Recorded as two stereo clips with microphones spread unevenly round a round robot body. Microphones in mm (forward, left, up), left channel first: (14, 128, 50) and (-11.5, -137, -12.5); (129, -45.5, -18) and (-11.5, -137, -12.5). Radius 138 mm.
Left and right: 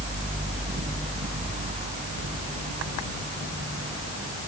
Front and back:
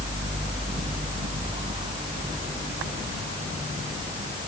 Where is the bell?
No bell in this recording.